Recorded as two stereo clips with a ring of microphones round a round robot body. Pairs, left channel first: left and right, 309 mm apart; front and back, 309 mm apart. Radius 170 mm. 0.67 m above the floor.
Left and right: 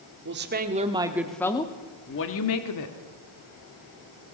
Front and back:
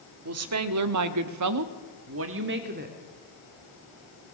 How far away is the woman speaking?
About 1.9 m.